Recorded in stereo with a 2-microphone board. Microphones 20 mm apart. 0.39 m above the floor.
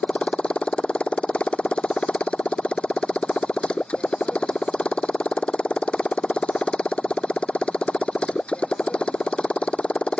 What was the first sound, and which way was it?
A motorcycle, 55° left (ahead or behind).